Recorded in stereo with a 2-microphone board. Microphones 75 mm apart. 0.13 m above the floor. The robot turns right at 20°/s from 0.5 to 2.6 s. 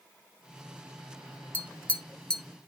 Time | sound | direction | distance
1.5 | tapping | 25° left (ahead or behind) | 1.0 m